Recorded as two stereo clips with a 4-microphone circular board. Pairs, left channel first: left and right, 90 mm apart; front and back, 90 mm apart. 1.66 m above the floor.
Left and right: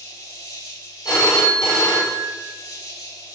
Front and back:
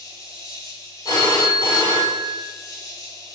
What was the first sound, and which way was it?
An insect, 50° left.